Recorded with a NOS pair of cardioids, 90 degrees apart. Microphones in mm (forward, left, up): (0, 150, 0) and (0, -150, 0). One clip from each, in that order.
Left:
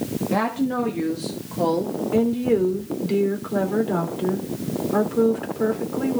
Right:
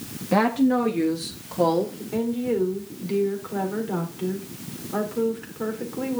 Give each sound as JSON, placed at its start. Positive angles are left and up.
{"t": 0.3, "sound": "a woman speaking", "azimuth_deg": -20, "distance_m": 1.8}
{"t": 2.1, "sound": "a woman speaking", "azimuth_deg": 25, "distance_m": 3.5}